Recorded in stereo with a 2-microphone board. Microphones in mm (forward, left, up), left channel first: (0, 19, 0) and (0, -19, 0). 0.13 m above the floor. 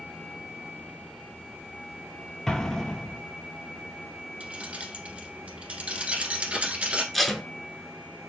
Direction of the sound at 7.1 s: 5° left (ahead or behind).